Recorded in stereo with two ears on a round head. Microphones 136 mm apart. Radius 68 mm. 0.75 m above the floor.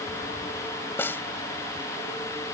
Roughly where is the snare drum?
Centre.